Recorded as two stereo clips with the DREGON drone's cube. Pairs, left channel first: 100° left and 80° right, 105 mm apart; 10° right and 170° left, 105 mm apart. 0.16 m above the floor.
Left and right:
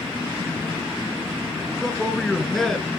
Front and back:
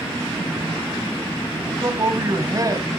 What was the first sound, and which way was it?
A man speaking, 175° right.